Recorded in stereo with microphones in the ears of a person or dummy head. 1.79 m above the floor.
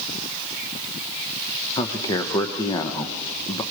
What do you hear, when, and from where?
1.8 s a man speaking: 20° left (ahead or behind), 1.2 m